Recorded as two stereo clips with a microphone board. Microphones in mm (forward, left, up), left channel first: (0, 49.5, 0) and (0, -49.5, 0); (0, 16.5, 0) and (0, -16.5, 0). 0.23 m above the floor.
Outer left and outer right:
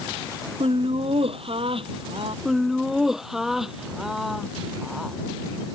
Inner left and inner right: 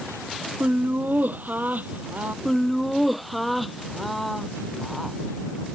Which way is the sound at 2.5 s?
Centre (ahead or behind).